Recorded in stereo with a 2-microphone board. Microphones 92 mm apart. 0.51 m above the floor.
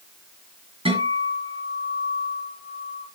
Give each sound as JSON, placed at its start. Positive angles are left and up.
{"t": 0.8, "sound": "a guitar", "side_deg": -80, "distance_m": 5.5}